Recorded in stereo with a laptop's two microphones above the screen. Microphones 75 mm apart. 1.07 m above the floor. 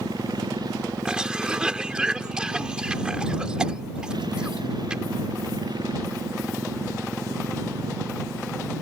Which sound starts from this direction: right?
A motorcycle, at 0.0 s.